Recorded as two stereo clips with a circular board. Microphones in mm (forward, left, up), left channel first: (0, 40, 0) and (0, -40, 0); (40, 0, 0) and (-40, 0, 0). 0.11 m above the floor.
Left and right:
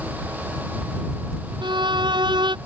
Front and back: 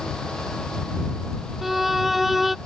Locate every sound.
1.6 s a violin: 90° right